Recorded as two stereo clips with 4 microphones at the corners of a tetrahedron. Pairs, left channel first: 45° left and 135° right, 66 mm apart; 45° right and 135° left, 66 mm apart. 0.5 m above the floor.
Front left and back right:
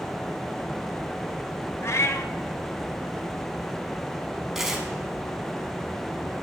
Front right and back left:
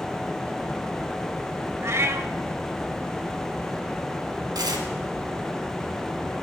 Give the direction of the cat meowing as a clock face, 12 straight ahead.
9 o'clock.